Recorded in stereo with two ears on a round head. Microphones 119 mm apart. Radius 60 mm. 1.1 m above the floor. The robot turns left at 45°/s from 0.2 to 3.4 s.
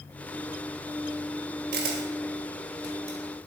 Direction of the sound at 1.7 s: 80° right.